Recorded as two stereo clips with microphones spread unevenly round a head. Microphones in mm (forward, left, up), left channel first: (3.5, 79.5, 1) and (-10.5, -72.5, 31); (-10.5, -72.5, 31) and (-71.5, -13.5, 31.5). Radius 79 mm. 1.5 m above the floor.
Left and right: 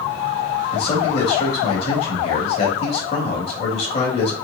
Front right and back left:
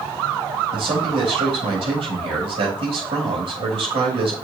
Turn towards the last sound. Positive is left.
turn(degrees=135)